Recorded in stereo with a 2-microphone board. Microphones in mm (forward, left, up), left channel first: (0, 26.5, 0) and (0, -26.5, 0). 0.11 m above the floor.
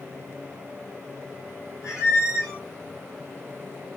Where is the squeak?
75° left (ahead or behind), 2 m.